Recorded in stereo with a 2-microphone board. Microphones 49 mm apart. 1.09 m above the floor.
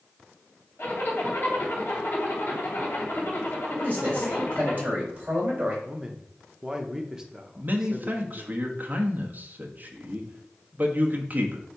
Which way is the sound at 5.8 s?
15° right (ahead or behind).